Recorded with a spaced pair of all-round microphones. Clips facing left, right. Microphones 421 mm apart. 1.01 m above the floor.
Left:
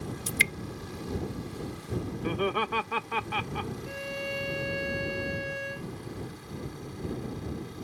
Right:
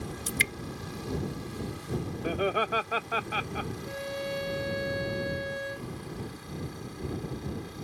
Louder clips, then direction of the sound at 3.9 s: Right 1 dB; 45° left (ahead or behind).